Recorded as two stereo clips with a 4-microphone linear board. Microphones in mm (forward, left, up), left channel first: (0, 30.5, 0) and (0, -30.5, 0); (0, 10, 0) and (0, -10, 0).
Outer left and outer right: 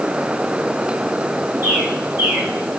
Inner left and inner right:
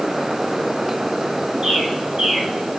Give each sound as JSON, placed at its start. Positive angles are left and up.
{"t": 1.6, "sound": "a bird", "side_deg": -30, "distance_m": 3.0}